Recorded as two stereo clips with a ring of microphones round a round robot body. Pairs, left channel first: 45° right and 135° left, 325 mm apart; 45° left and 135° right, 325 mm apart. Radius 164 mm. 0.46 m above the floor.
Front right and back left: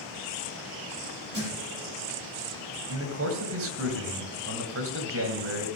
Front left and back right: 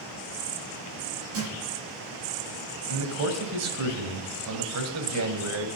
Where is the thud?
165° right, 8 m.